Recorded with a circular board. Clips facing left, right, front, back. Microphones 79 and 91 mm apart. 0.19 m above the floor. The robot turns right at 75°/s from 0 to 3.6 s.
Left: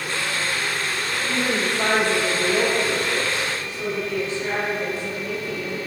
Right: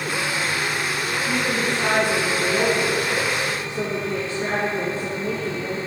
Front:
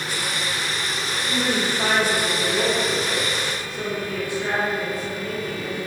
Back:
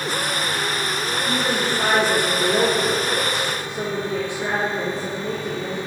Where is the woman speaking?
65° left, 4 m; by 5.8 s 115° right, 4 m.